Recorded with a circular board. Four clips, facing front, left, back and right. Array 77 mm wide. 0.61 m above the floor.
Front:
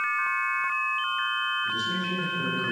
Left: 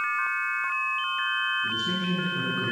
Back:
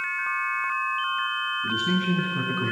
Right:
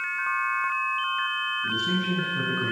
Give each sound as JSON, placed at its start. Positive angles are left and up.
{"t": 1.6, "sound": "a man speaking", "azimuth_deg": 180, "distance_m": 7.0}